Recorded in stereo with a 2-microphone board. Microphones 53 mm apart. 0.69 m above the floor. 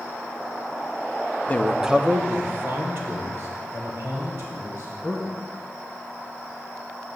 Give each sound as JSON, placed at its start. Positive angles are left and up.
{"t": 1.5, "sound": "a man speaking", "side_deg": 30, "distance_m": 0.6}